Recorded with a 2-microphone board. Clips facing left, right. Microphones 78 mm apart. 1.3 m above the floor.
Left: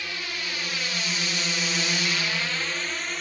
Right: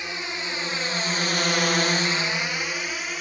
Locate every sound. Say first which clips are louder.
0.0 s a drone: right 2 dB; 20° right (ahead or behind); by 3.2 s 5° right (ahead or behind)